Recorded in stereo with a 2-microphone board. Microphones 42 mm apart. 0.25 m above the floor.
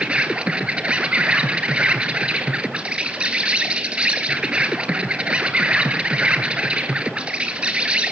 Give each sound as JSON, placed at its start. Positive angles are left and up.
{"t": 0.0, "sound": "an insect", "side_deg": -30, "distance_m": 1.0}